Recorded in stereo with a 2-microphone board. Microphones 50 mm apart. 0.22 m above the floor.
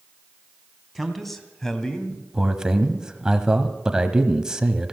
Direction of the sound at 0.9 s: Centre (ahead or behind).